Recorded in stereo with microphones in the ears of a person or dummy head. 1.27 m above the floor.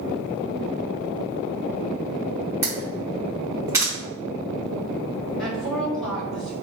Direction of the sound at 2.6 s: 10° right (ahead or behind).